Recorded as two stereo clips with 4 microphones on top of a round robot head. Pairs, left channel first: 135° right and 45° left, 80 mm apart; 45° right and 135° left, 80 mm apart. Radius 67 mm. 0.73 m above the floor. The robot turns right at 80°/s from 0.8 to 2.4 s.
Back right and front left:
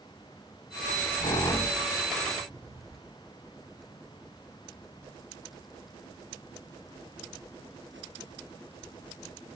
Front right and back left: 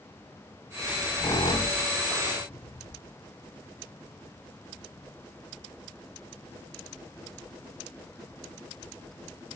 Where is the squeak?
130° right, 0.7 m; by 3.0 s 5° right, 0.7 m.